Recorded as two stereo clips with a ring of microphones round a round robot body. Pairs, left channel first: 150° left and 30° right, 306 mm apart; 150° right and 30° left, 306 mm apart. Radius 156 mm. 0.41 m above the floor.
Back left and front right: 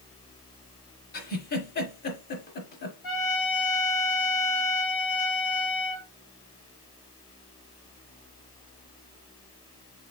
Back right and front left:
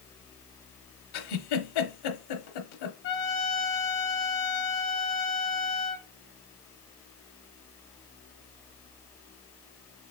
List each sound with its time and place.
1.1 s a giggle: 150° right, 1.0 m
3.0 s a trumpet: 155° left, 1.4 m